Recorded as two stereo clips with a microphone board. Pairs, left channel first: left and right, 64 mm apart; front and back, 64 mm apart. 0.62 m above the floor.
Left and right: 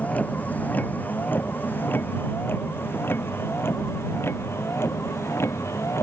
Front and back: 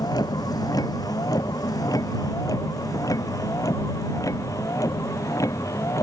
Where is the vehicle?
25° left; by 6.0 s 40° left.